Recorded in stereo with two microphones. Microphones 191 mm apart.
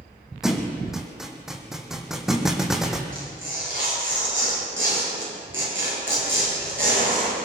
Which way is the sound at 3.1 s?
85° right.